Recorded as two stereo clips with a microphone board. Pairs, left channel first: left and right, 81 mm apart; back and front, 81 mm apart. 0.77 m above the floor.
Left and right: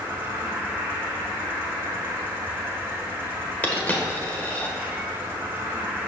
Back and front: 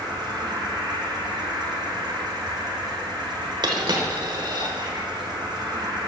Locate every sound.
0.0 s an insect: 20° right, 2 m
3.6 s a dropped coin: 20° left, 1.2 m